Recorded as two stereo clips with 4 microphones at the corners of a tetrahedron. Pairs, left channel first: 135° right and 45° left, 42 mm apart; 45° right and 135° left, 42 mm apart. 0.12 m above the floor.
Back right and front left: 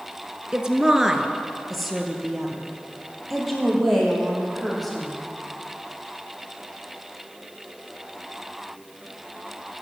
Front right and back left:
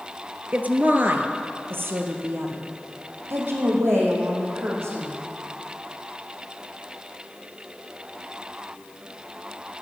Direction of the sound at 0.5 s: 110° left.